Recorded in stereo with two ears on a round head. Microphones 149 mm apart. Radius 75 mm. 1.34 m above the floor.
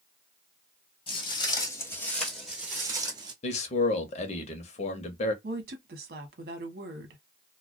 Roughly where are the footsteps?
Left.